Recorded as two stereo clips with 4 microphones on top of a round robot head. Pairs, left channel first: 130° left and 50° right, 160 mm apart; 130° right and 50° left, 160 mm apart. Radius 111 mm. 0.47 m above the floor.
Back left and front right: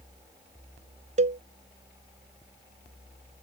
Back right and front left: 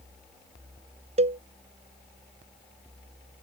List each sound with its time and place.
1.2 s a cowbell: straight ahead